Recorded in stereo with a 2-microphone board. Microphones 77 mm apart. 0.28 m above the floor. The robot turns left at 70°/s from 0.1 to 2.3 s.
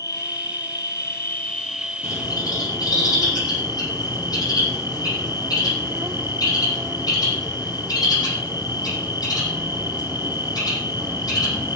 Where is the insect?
115° left, 0.9 m; by 11.8 s 35° right, 0.9 m.